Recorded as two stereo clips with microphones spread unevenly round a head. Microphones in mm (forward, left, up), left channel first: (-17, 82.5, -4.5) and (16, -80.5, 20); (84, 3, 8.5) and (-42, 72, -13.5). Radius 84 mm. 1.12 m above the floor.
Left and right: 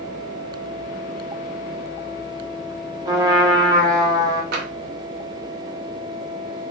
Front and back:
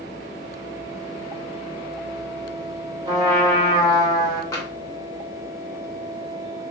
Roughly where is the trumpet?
Behind right.